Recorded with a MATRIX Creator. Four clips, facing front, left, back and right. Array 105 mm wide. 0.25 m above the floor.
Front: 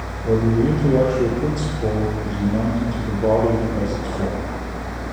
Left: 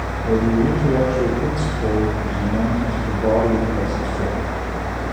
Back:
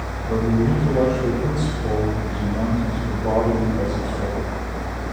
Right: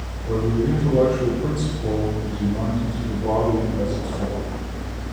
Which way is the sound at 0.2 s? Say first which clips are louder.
Left 4 dB, front 3 dB; 35° left.